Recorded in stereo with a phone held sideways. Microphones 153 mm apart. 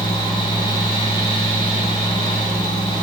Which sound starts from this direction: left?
A fan, at 0.0 s.